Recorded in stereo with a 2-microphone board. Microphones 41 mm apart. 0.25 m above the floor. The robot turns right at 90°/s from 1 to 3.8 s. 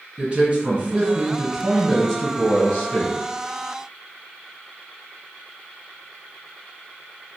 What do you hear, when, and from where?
0.2 s a man speaking: 25° right (ahead or behind), 1.5 m; by 3.2 s 20° left (ahead or behind), 1.5 m